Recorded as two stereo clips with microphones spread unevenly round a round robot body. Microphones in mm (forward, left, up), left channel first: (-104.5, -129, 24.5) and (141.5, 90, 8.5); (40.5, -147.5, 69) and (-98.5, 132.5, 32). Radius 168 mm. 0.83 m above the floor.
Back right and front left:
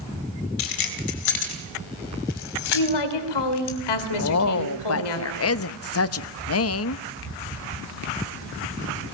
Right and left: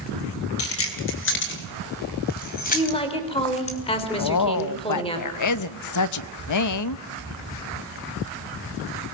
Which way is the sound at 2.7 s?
140° right.